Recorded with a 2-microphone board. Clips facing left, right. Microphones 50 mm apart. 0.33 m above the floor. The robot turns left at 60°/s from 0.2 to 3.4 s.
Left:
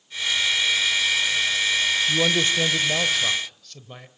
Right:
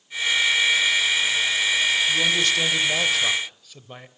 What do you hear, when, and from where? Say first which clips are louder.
2.1 s a man speaking: even; 65° left, 1.0 m; by 4.1 s 15° right, 1.0 m